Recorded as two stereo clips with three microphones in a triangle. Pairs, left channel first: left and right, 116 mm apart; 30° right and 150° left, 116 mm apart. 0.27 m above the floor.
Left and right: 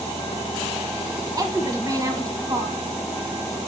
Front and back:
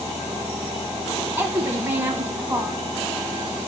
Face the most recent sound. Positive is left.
turn(degrees=-140)